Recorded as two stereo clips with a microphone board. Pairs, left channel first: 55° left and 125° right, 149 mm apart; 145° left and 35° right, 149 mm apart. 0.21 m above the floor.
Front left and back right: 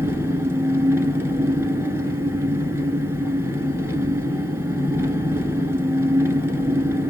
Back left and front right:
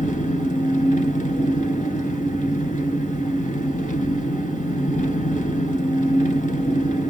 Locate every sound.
0.0 s an engine running: 165° left, 0.8 m